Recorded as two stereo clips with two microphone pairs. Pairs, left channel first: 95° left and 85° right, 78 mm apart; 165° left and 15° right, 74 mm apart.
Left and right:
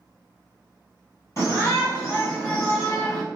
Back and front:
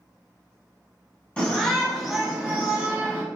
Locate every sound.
1.4 s a shout: 100° left, 1.7 m; by 3.2 s 10° left, 1.6 m